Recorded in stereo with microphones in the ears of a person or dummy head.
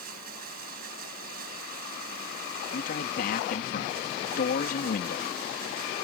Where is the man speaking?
55° left (ahead or behind).